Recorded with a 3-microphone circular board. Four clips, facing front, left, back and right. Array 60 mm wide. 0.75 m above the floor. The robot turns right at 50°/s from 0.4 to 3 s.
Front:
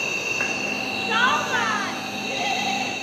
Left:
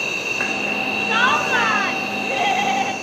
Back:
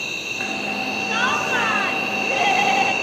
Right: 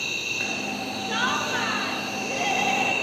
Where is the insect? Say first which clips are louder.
Left 6 dB, front 2 dB; 70° left, 1.2 m; by 3.0 s 160° right, 1.2 m.